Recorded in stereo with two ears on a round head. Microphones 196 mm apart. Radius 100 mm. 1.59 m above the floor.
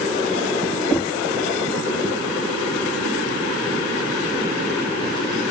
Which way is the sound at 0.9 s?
10° left (ahead or behind).